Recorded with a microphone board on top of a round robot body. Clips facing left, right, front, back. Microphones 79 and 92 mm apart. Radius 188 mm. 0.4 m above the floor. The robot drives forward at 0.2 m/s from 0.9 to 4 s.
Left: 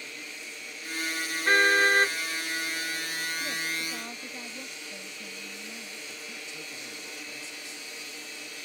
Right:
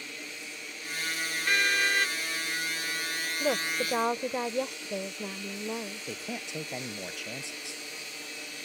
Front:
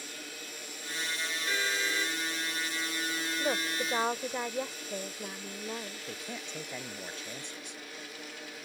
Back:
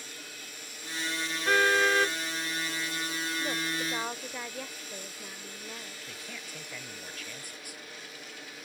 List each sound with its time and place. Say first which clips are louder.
1.4 s a car horn: left 6 dB, back 10 dB; 145° left
3.4 s a woman speaking: right 5 dB, front 3 dB; 65° right
6.1 s a man speaking: right 5 dB, front 3 dB; 65° right